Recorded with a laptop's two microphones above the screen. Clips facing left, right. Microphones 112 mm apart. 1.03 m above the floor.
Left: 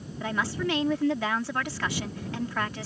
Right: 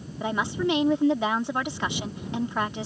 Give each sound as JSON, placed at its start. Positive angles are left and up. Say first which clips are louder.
{"t": 0.2, "sound": "a woman speaking", "louder": "right 3 dB", "side_deg": -20}